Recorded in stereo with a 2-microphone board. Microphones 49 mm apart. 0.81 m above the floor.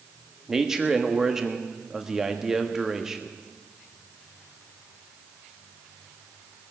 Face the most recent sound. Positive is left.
turn(degrees=-10)  # may be behind; listen again after turning